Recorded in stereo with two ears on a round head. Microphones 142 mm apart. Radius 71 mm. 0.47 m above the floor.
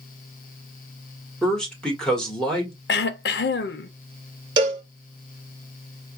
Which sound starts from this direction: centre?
A man speaking, at 1.4 s.